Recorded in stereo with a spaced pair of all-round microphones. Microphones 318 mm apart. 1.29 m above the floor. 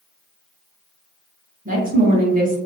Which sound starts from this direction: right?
A woman speaking, at 1.6 s.